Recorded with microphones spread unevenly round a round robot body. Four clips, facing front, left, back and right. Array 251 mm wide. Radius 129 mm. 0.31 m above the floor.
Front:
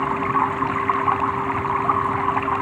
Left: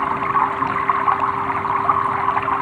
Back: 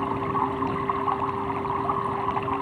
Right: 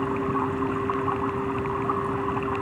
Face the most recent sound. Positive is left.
turn(degrees=60)